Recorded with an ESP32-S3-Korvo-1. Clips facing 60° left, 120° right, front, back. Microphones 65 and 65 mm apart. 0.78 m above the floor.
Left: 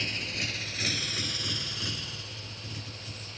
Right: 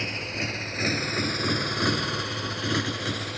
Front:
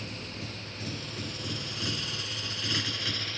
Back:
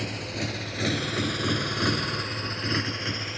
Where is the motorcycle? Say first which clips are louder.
Right 4 dB, back 8 dB; 175° left; by 3.4 s 110° right.